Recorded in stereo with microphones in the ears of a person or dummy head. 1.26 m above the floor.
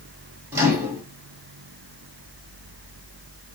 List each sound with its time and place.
0.5 s a microwave: 15° right (ahead or behind), 1.3 m